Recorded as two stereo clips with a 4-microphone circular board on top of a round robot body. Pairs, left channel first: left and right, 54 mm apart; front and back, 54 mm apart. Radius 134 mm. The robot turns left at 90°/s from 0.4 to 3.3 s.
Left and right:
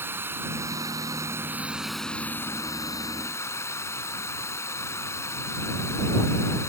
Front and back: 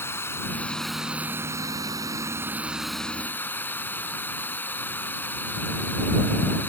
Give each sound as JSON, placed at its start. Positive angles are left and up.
{"t": 0.0, "sound": "running water", "azimuth_deg": -45}